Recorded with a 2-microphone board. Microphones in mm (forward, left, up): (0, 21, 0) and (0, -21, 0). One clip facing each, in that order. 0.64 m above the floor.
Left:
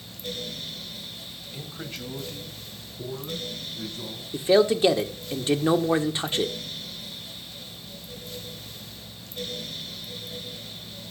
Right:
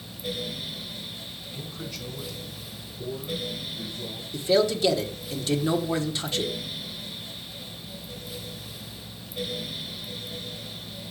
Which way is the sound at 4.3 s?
25° left (ahead or behind).